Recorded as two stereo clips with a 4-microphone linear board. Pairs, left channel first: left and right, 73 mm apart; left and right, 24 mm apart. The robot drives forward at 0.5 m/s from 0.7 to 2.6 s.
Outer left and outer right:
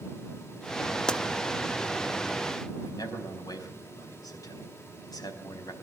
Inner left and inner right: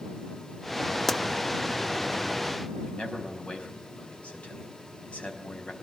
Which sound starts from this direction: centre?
A pop, at 1.1 s.